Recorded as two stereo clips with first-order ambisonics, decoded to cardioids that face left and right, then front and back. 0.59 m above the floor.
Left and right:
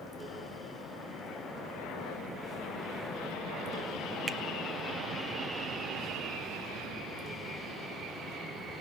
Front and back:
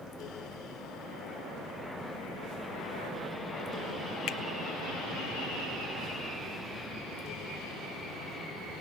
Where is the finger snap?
25° right, 0.7 m.